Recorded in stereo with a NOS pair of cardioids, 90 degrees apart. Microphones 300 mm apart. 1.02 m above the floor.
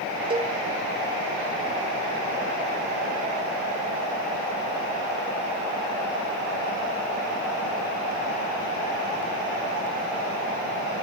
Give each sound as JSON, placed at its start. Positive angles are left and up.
{"t": 0.3, "sound": "a cowbell", "azimuth_deg": -15, "distance_m": 1.3}